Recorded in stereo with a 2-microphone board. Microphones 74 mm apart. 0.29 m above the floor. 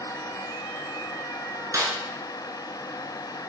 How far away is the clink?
No clink in this recording.